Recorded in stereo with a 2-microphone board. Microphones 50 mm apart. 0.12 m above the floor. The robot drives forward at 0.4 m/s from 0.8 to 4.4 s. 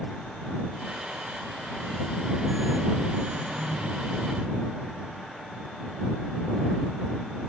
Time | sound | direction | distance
3.3 | throat clearing | 35° right (ahead or behind) | 5 m